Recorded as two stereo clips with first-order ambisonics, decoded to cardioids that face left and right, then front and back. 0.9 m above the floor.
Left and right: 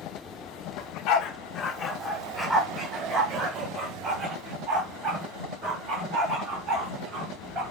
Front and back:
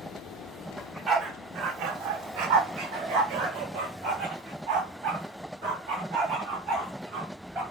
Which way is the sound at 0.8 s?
95° left.